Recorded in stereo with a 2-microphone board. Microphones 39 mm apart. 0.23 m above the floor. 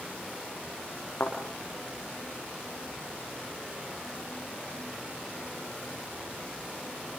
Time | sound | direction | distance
1.2 | a thud | 85° left | 8.5 m